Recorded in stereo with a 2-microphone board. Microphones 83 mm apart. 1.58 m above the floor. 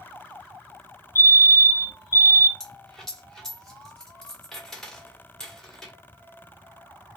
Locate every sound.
1.1 s a fire alarm: 30° right (ahead or behind), 1.4 m
2.6 s a dropped coin: 5° left (ahead or behind), 1.3 m